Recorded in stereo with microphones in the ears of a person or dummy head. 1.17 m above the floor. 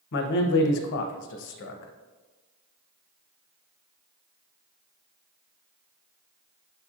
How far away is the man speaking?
About 0.6 m.